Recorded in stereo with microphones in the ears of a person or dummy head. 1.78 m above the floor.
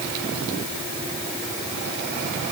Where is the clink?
I don't hear a clink.